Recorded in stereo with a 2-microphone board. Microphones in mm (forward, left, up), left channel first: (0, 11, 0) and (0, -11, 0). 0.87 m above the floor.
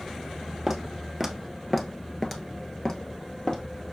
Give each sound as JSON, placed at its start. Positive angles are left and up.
{"t": 0.7, "sound": "footsteps", "side_deg": -20, "distance_m": 1.3}